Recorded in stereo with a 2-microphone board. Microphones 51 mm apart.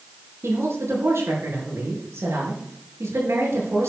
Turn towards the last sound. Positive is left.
turn(degrees=-75)  # may be behind; listen again after turning